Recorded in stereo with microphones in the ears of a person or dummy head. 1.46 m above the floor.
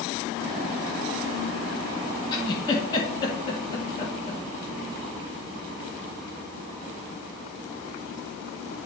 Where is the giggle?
25° left (ahead or behind), 1.4 m.